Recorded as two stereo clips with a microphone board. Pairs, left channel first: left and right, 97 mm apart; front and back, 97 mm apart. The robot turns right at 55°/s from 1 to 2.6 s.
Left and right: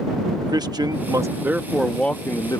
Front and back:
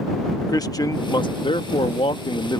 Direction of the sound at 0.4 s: 45° right.